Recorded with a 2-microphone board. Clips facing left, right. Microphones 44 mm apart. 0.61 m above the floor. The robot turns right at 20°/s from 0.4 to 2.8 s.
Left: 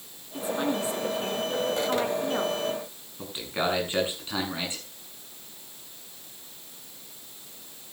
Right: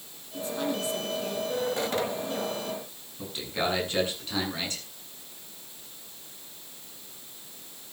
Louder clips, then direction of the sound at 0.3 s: Left 3 dB; 15° left.